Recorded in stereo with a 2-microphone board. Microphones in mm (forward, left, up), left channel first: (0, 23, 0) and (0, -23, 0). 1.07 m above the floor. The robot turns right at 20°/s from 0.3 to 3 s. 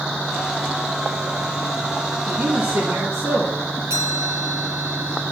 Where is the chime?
75° right (ahead or behind), 1.6 m.